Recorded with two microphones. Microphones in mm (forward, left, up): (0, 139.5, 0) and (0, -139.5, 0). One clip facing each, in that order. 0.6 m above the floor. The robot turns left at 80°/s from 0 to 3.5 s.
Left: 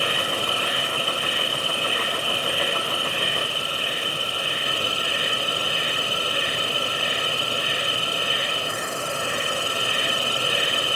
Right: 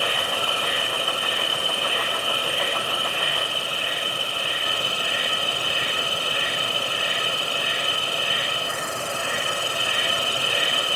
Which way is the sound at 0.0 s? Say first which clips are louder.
Left 1 dB; 25° left.